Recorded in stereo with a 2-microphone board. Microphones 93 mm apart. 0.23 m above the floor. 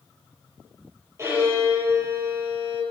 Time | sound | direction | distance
1.2 | a violin | 30° right (ahead or behind) | 7 m